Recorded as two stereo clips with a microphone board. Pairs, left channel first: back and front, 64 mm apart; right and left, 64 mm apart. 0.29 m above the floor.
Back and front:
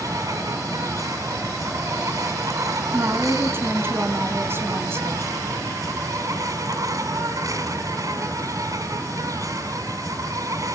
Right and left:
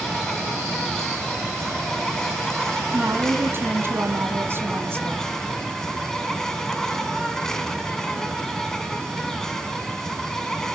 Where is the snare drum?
No snare drum in this recording.